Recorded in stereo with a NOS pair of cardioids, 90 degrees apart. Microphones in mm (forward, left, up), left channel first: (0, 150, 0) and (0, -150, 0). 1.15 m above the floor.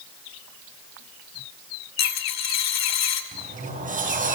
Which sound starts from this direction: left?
A dropped coin, at 2.0 s.